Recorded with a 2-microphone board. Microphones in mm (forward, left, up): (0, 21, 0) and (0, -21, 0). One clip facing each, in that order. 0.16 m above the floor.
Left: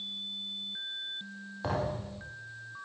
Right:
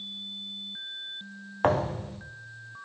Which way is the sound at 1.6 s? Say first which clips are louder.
Right 8 dB; 55° right (ahead or behind).